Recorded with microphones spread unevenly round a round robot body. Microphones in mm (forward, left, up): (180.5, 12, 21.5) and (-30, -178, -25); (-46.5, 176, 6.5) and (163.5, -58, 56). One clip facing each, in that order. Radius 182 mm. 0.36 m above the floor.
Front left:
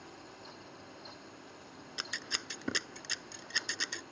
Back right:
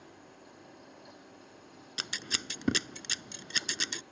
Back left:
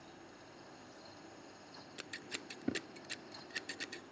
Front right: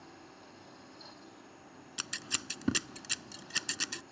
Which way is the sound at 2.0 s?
100° right.